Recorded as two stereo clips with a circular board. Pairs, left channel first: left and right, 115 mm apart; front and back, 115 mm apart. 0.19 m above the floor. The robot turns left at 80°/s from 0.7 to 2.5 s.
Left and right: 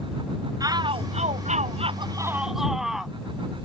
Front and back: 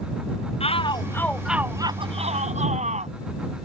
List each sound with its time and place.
0.6 s a shout: 35° right; by 3.1 s 175° right